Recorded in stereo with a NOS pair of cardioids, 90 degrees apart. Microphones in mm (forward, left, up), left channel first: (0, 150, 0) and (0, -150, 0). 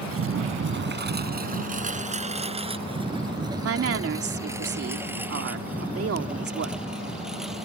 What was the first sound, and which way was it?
A lawn mower, 55° right.